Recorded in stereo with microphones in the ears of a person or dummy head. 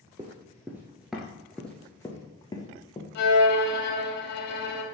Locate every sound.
0.2 s running footsteps: 20° right (ahead or behind), 1.2 m; by 3.0 s 25° left (ahead or behind), 1.6 m
3.1 s a violin: 60° left (ahead or behind), 1.9 m